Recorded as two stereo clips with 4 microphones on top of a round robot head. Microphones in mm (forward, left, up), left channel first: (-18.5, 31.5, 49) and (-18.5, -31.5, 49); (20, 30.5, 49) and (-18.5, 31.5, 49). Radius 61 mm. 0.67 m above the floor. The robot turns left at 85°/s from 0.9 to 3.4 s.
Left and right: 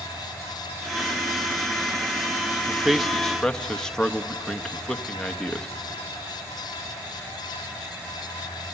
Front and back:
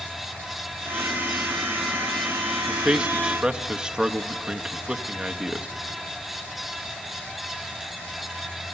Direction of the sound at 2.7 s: 145° right.